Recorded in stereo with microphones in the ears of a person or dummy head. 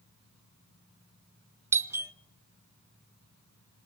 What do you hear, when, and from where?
1.7 s a doorbell: 10° right (ahead or behind), 0.7 m